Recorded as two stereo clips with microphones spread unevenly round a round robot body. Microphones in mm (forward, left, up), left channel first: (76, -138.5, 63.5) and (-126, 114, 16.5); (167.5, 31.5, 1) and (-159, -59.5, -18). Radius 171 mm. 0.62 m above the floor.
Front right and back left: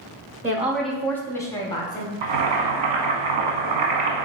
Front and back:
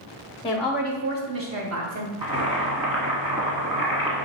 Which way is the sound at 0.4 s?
80° left.